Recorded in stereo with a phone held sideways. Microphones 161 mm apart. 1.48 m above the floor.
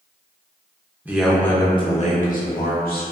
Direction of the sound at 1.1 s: 10° right (ahead or behind).